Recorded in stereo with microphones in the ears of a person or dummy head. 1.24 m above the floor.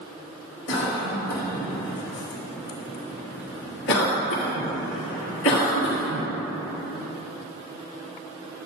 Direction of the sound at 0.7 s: 65° left (ahead or behind).